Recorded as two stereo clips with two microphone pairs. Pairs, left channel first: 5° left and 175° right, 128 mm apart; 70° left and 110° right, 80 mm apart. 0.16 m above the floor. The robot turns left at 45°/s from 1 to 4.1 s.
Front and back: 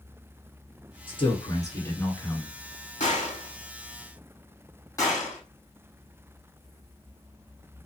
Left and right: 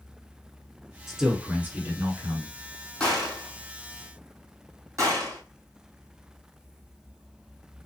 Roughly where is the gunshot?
Ahead.